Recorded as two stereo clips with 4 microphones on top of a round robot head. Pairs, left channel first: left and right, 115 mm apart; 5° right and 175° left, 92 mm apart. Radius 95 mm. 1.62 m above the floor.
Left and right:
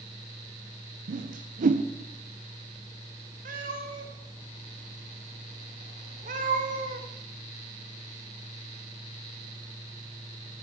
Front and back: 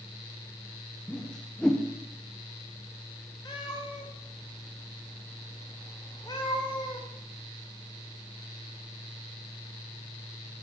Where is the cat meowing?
75° right, 3 m.